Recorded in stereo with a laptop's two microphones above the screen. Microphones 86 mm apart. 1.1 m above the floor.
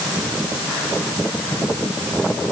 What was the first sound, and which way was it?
Only background noise.